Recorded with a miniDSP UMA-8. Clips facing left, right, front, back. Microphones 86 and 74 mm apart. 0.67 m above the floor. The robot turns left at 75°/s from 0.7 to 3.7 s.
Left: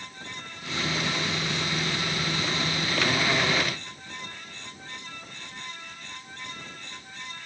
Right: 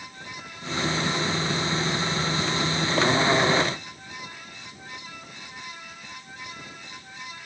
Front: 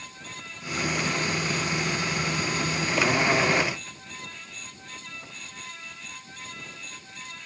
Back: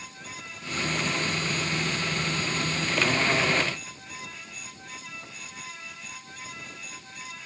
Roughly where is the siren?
I don't hear a siren.